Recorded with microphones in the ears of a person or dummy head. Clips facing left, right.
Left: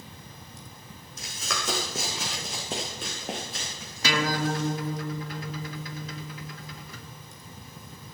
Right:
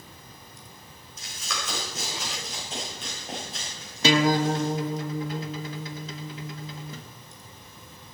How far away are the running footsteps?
About 4.5 m.